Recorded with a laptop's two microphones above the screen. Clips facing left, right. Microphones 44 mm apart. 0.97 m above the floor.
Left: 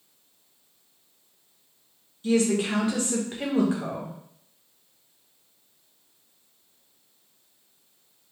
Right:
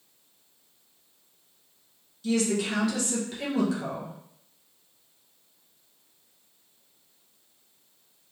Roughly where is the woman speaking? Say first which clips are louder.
Left 3 dB; left.